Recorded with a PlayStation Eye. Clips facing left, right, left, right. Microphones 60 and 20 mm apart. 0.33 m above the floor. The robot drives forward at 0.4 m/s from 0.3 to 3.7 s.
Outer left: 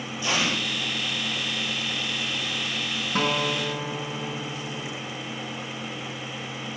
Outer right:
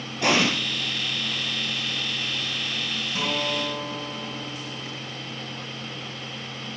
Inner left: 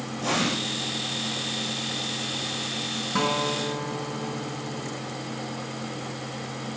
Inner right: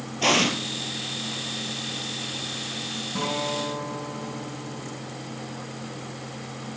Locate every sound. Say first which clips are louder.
0.2 s an explosion: outer right 5 dB, inner right 5 dB; 60° right (ahead or behind), 3.5 m; by 0.5 s 65° right (ahead or behind), 3.5 m
3.1 s a guitar: outer left 3 dB, inner left 3 dB; 45° left (ahead or behind), 4 m